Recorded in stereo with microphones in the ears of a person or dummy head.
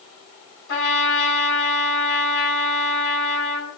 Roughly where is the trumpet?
Left.